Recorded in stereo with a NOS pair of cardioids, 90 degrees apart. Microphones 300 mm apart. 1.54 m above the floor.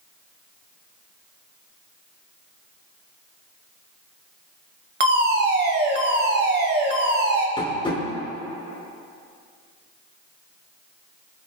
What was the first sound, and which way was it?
A fire alarm, 35° right.